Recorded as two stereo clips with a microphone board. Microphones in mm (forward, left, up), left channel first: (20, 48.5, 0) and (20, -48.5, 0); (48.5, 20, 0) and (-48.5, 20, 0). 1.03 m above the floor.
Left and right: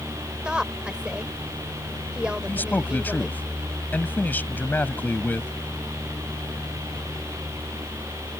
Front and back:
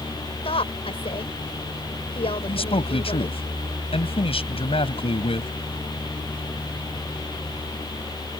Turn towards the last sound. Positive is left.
turn(degrees=20)